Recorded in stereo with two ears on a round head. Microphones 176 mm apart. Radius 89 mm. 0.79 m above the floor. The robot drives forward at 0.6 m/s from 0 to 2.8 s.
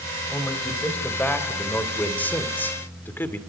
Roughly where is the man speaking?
Centre.